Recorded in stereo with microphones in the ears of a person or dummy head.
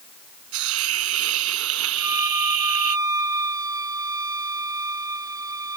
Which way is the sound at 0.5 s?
80° right.